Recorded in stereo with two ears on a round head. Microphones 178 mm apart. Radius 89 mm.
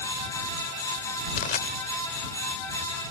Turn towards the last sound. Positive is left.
turn(degrees=40)  # may be behind; listen again after turning